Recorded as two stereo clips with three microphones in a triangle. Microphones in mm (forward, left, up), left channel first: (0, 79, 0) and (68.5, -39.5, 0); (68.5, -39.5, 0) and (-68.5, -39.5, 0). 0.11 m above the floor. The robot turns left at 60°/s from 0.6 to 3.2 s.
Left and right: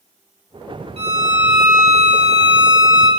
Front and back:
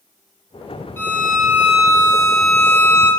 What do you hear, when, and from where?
1.0 s a violin: 70° right, 0.7 m; by 3.1 s 165° left, 0.7 m